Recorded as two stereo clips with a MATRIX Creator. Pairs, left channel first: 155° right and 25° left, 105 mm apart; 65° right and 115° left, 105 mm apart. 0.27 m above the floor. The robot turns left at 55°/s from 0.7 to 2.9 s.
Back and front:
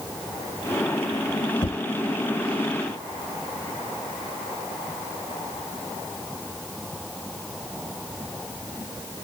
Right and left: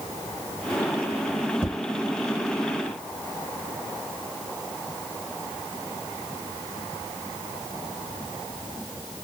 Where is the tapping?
175° right, 1.1 m; by 1.8 s 175° left, 1.1 m.